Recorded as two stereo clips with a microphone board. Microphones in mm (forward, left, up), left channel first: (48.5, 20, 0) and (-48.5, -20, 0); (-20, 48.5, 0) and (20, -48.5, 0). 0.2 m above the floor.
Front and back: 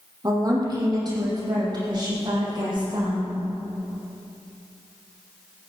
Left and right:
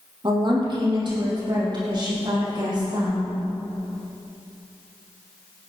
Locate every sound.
0.2 s a woman speaking: 105° right, 5 m; by 3.4 s 115° right, 9 m